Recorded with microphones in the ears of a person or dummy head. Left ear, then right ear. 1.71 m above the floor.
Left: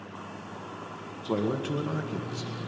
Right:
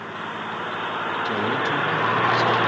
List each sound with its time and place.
1.2 s a man speaking: 45° left (ahead or behind), 1.8 m